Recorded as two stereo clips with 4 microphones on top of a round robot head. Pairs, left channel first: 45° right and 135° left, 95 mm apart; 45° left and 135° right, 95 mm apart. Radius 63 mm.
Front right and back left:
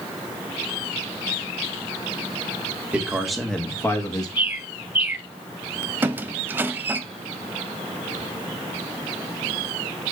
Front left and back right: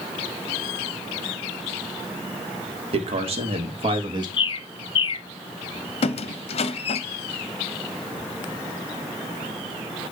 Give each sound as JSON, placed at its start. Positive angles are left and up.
{"t": 2.9, "sound": "a man speaking", "azimuth_deg": -150, "distance_m": 1.8}
{"t": 4.4, "sound": "a bird", "azimuth_deg": 70, "distance_m": 0.7}
{"t": 6.0, "sound": "a squeak", "azimuth_deg": 65, "distance_m": 0.6}